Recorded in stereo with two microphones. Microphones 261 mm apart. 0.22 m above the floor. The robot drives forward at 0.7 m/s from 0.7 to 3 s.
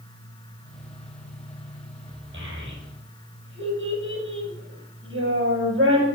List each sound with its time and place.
2.3 s a child speaking: 45° right (ahead or behind), 5.5 m; by 6.1 s 50° right (ahead or behind), 5 m